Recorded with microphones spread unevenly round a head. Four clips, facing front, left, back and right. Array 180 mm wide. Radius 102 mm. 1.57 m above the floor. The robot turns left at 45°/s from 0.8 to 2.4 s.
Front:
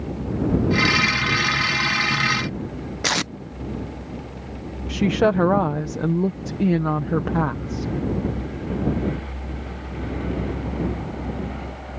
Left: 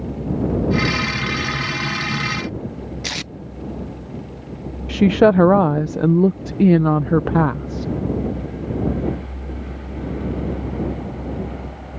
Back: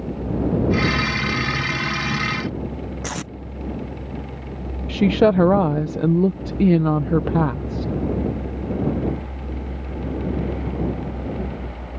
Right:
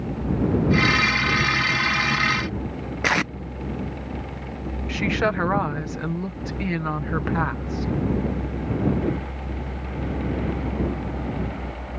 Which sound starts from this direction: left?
A woman speaking, at 4.9 s.